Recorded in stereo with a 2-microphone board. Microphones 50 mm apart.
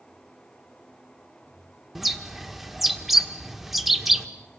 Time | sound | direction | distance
1.9 | a bird | 5° right (ahead or behind) | 1.5 m